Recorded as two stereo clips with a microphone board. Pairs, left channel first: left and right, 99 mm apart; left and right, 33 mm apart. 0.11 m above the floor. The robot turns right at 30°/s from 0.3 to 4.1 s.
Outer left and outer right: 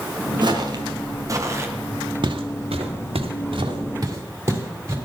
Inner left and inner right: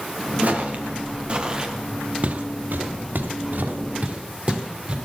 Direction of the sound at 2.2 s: 50° right (ahead or behind).